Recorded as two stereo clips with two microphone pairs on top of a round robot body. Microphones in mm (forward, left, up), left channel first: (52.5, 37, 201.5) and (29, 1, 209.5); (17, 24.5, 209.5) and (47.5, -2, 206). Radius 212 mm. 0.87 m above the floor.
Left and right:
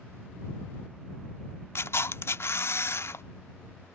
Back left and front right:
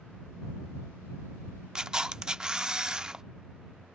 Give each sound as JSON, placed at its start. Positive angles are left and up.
{"t": 1.8, "sound": "a camera shutter", "azimuth_deg": 30}